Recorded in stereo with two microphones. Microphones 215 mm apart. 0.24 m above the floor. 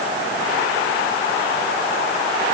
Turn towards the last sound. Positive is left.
No sound to turn to.